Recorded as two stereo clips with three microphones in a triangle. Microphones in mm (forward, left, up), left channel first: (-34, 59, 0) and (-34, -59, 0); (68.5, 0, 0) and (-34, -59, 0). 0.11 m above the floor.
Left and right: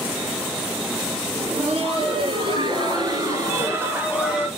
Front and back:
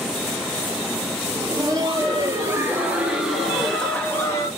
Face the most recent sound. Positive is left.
turn(degrees=-5)